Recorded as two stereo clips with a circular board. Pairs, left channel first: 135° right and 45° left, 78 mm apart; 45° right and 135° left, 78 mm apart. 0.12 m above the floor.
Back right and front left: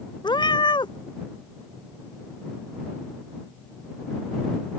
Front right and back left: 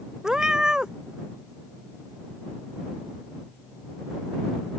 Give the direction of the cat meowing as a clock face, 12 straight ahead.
5 o'clock.